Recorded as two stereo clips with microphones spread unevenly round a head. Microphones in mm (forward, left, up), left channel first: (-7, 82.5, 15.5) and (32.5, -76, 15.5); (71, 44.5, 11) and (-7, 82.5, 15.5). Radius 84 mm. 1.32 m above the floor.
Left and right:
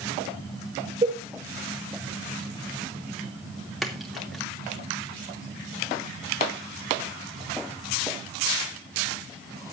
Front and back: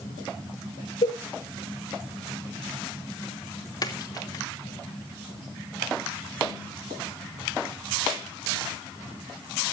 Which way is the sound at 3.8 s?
15° left.